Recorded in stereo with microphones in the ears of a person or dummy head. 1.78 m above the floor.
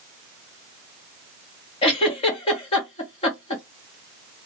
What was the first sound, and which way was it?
A giggle, 30° left (ahead or behind).